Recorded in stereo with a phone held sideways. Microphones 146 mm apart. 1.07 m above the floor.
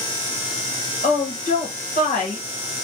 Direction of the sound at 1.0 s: 60° left (ahead or behind).